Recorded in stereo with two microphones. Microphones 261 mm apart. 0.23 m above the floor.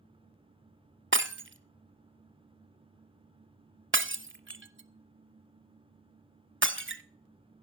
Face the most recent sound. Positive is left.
turn(degrees=-50)  # may be behind; listen again after turning